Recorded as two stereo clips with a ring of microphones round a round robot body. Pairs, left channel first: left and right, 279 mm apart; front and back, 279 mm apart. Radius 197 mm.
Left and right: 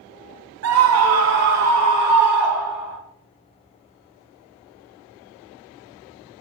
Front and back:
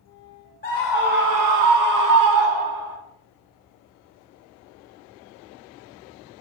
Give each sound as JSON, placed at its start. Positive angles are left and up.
{"t": 0.6, "sound": "a scream", "azimuth_deg": -65, "distance_m": 0.9}